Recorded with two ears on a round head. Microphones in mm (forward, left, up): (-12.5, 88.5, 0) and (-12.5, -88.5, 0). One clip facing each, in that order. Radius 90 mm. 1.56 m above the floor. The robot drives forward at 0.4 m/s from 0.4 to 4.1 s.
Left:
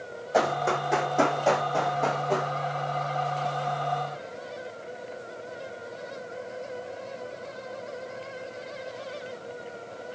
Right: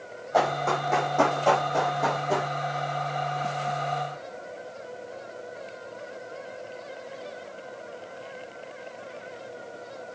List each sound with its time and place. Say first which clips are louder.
0.3 s running footsteps: even; 20° left (ahead or behind), 3.5 m; by 2.5 s 10° right (ahead or behind), 3.5 m